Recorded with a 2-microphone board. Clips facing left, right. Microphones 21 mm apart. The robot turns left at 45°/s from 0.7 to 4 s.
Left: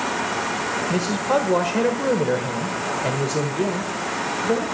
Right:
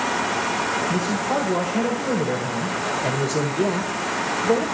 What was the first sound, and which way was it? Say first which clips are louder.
A man speaking: left 1 dB; 105° left.